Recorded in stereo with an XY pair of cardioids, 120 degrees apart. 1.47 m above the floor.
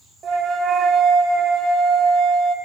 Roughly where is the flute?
Ahead right.